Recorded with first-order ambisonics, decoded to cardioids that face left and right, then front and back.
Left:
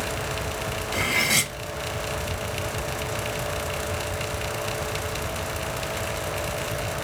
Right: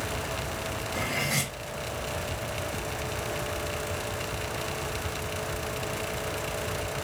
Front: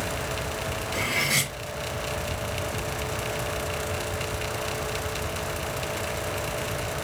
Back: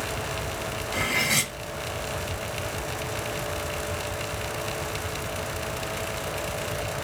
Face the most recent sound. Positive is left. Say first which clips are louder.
# left 8 dB, back 1 dB
turn(degrees=110)